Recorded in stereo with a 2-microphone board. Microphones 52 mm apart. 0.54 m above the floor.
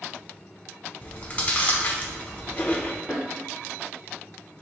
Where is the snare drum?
10° right (ahead or behind), 2.0 m.